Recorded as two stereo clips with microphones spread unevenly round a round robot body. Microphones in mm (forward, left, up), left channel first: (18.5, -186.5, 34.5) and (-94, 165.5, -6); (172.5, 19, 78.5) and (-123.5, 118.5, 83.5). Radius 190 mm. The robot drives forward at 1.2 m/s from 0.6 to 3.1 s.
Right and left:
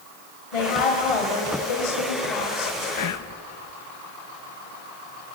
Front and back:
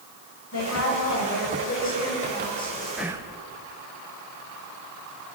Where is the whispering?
110° right, 1.2 m; by 3.4 s 115° right, 1.2 m.